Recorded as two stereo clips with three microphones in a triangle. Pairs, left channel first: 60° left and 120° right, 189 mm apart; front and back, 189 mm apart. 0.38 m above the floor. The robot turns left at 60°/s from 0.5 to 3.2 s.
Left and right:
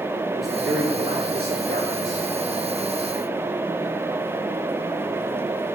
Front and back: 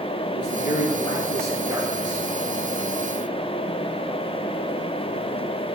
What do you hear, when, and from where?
0.3 s a man speaking: 30° right, 6 m; by 2.3 s 140° right, 6 m